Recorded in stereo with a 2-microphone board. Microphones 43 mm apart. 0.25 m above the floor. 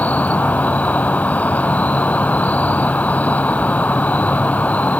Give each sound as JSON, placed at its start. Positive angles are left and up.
{"t": 0.0, "sound": "an insect", "side_deg": 35}